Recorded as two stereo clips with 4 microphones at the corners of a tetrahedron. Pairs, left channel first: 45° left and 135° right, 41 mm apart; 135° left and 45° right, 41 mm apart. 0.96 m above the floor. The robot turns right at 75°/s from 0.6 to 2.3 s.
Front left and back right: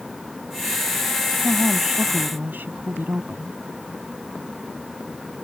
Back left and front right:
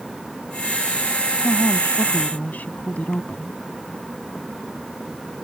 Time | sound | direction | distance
1.4 | a woman speaking | 115° left | ?